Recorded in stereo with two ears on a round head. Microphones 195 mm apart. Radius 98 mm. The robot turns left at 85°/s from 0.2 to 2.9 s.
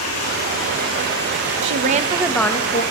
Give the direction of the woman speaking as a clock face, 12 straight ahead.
4 o'clock.